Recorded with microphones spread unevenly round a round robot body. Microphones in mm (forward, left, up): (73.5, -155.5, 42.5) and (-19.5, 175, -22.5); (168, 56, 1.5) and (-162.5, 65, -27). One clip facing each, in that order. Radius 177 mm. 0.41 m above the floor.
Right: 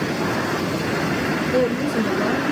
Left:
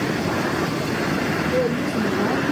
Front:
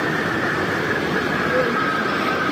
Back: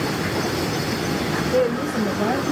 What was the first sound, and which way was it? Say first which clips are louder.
A woman speaking: right 3 dB, back 4 dB; 160° right.